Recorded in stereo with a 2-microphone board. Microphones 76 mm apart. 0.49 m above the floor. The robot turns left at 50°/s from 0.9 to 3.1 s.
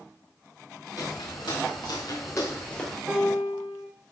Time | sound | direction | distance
1.0 | footsteps | 50° left (ahead or behind) | 3 m
3.1 | a piano | centre (ahead or behind) | 4.5 m